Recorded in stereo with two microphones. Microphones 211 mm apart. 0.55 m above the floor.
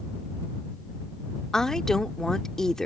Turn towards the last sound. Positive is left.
turn(degrees=5)  # may be behind; listen again after turning